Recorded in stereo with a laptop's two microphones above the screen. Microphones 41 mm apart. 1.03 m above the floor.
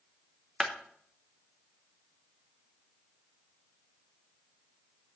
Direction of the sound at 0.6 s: Centre (ahead or behind).